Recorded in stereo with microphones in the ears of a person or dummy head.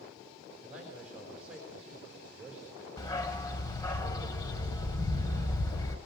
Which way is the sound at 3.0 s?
20° left (ahead or behind).